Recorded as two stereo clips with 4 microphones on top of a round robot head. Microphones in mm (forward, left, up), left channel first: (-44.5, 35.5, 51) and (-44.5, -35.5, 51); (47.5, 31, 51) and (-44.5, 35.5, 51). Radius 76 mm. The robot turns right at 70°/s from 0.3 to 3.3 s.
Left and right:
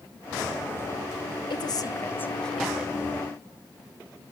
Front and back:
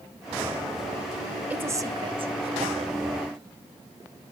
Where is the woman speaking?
100° left, 1.9 m; by 2.9 s 155° right, 1.9 m.